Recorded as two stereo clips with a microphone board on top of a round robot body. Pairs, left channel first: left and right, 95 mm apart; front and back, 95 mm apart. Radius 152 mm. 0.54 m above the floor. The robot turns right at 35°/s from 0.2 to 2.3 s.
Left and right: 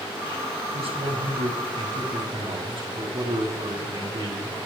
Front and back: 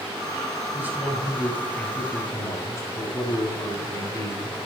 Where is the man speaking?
115° right, 7.5 m; by 4.6 s 60° right, 7.5 m.